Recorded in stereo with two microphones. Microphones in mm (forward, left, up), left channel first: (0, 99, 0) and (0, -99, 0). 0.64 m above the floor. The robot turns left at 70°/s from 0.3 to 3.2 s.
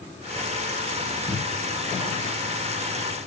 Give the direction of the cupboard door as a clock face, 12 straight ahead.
6 o'clock.